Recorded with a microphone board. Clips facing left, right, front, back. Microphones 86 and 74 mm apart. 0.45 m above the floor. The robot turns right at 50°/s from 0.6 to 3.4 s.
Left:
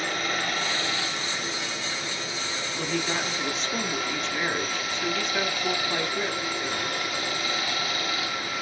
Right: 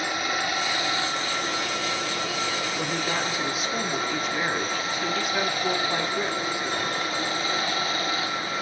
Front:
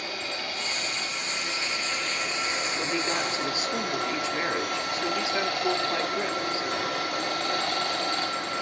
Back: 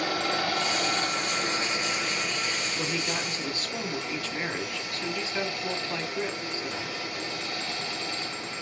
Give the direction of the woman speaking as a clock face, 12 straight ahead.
2 o'clock.